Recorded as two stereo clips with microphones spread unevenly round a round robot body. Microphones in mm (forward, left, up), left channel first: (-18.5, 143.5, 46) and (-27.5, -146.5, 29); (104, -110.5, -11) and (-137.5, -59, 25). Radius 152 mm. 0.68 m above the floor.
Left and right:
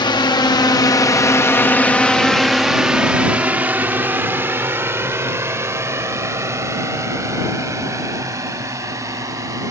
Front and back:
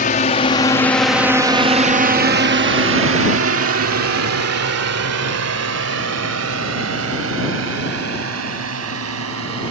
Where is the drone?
15° left; by 9.7 s 170° right.